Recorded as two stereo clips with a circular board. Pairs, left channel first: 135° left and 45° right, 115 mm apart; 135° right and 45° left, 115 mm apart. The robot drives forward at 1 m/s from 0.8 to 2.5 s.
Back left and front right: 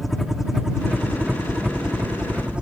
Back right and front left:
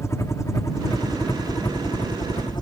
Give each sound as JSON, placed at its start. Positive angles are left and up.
{"t": 0.0, "sound": "a helicopter", "azimuth_deg": -135}